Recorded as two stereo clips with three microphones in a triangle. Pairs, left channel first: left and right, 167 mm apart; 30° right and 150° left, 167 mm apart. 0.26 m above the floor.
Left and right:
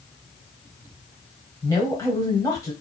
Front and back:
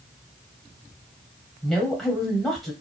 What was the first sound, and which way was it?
A woman speaking, 60° left.